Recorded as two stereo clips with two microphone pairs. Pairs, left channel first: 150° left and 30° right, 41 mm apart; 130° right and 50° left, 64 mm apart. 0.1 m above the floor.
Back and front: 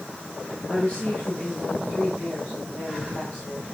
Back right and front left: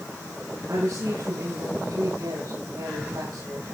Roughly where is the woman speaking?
Left.